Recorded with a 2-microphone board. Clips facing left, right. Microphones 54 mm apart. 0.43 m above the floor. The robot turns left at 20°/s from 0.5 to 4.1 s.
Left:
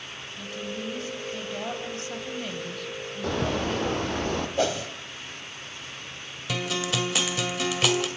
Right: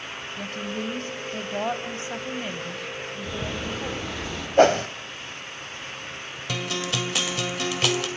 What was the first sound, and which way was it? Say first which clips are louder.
A woman speaking: right 3 dB; 120° right.